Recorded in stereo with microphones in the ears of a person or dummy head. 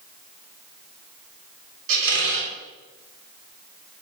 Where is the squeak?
70° right (ahead or behind), 3.5 m.